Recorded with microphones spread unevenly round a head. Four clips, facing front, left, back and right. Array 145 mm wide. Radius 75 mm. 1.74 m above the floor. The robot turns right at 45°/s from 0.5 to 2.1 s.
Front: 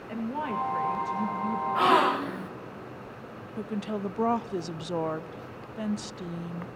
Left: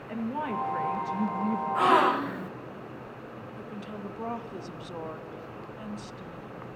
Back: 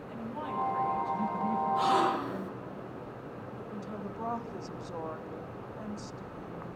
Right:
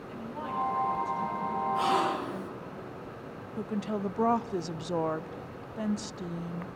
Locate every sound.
0.1 s a woman speaking: 45° left, 2.0 m; by 1.6 s 95° left, 2.0 m
1.8 s a gasp: 30° left, 1.2 m; by 2.5 s 50° left, 1.2 m
3.6 s a woman speaking: 40° right, 0.6 m